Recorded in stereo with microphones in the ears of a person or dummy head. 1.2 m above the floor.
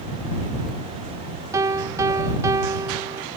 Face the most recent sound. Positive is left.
turn(degrees=-15)  # may be behind; listen again after turning